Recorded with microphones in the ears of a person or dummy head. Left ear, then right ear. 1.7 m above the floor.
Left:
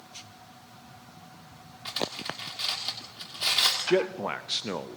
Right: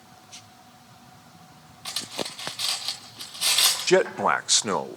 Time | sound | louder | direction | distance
1.9 | cutlery clinking | right 1 dB | 10° right (ahead or behind) | 2.5 m
3.9 | a man speaking | right 6 dB | 40° right (ahead or behind) | 0.5 m